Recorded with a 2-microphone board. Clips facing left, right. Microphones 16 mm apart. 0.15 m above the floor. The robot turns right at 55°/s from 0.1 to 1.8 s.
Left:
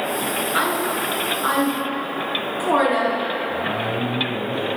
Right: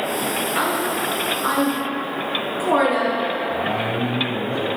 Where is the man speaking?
55° right (ahead or behind), 3 m.